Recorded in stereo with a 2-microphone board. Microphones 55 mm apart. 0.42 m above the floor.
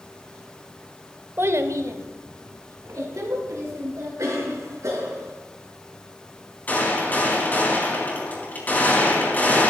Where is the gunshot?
30° left (ahead or behind), 3.5 m.